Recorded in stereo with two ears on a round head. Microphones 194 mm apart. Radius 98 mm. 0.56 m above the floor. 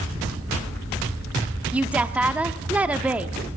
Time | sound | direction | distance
1.7 | a woman speaking | 5° right (ahead or behind) | 0.7 m